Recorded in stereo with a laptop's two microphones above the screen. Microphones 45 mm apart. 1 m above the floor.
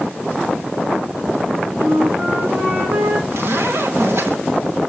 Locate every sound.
1.8 s a flute: 55° right (ahead or behind), 2 m
3.3 s a zipper: 60° right (ahead or behind), 3.5 m